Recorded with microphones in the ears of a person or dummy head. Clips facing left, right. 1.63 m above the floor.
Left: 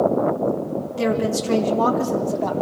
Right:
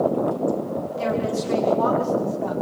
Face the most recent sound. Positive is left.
turn(degrees=85)